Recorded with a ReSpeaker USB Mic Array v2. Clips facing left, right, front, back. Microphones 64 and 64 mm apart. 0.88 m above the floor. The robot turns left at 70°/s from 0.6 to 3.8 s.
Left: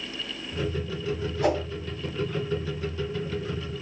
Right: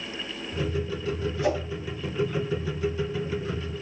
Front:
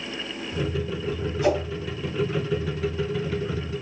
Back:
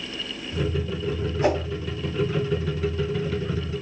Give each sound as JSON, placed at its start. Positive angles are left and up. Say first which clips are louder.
{"t": 1.4, "sound": "a whoosh", "louder": "left 2 dB, even", "azimuth_deg": 125, "distance_m": 1.7}